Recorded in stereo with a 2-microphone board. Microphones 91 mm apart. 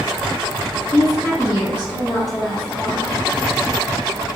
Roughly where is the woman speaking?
Right.